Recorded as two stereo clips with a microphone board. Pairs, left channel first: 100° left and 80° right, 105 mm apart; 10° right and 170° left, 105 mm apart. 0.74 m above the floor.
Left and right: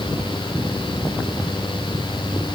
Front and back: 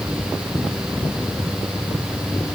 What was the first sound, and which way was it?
Only background noise.